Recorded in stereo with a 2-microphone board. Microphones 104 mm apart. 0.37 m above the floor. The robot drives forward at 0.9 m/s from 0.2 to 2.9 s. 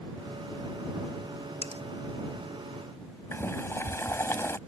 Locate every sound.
1.6 s cutlery clinking: 85° right
3.3 s boiling: 25° left (ahead or behind)